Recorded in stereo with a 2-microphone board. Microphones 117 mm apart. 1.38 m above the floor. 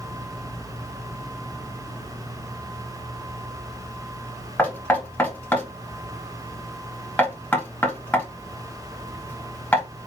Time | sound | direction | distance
4.6 | knocking | 15° left (ahead or behind) | 3.5 m